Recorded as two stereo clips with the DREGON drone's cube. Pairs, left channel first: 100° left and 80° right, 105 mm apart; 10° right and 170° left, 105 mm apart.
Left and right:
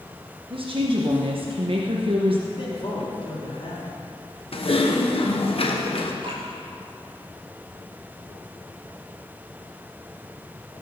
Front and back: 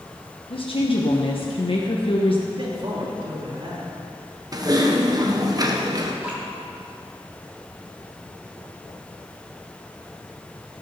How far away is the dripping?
About 3.5 m.